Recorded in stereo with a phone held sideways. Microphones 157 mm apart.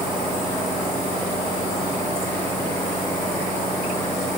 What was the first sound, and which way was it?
Only background noise.